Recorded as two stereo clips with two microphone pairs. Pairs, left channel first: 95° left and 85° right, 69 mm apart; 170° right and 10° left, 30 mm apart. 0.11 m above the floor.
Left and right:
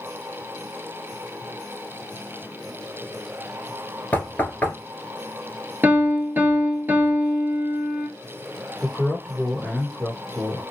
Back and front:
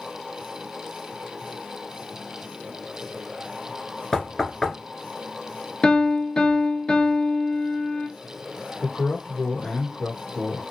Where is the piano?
115° right, 0.8 m.